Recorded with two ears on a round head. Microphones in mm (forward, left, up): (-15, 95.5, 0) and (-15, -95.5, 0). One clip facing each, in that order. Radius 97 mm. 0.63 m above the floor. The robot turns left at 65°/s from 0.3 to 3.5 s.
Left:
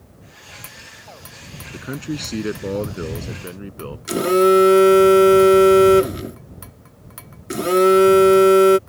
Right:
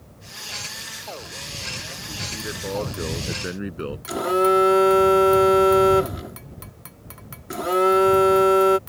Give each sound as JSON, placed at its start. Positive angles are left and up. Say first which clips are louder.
{"t": 1.7, "sound": "a man speaking", "louder": "left 16 dB", "azimuth_deg": 95}
{"t": 4.1, "sound": "a phone buzzing", "louder": "left 6 dB", "side_deg": 35}